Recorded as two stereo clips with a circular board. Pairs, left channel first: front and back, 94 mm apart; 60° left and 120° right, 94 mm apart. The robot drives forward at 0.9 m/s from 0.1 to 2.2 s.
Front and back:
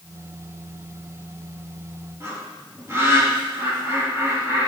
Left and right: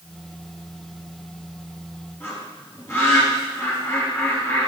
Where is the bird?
120° left, 3.5 m.